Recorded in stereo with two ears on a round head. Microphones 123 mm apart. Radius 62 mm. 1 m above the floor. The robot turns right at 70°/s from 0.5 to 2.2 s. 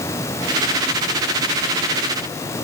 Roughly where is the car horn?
No car horn in this recording.